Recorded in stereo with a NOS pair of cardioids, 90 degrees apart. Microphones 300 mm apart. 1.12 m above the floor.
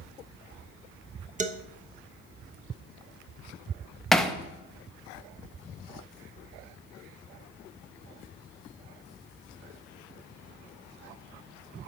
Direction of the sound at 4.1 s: Straight ahead.